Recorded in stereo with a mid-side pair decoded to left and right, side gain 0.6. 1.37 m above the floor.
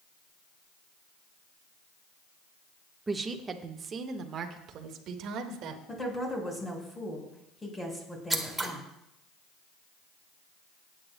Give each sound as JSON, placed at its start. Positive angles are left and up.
{"t": 3.1, "sound": "a woman speaking", "azimuth_deg": -20, "distance_m": 1.2}
{"t": 5.9, "sound": "a woman speaking", "azimuth_deg": 10, "distance_m": 4.5}
{"t": 8.3, "sound": "scissors", "azimuth_deg": -10, "distance_m": 1.5}